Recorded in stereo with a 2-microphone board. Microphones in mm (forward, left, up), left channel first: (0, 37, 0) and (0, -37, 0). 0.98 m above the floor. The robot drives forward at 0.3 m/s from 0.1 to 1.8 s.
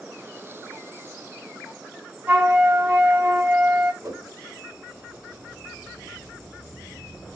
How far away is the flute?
About 0.8 m.